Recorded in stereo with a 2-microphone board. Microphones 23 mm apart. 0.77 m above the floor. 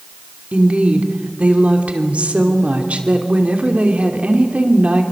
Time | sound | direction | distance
0.5 | a woman speaking | 60° right (ahead or behind) | 2.5 m